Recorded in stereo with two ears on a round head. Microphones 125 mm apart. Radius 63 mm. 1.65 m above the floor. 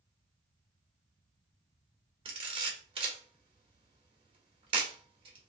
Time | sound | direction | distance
2.2 | a camera shutter | 40° right (ahead or behind) | 1.2 m